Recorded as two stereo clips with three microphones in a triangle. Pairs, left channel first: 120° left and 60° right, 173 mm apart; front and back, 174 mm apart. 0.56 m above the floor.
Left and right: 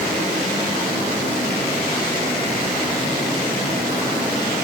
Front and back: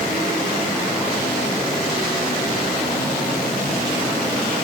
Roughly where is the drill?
No drill in this recording.